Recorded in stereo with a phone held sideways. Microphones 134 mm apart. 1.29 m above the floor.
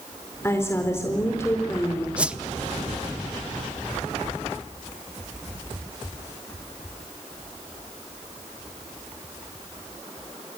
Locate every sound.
0.4 s a woman speaking: 20° left (ahead or behind), 4 m
2.2 s a whoosh: 10° right (ahead or behind), 0.9 m